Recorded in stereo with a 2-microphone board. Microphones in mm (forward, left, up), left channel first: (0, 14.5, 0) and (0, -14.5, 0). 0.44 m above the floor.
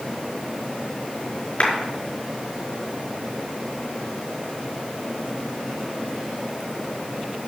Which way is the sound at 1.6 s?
45° left (ahead or behind).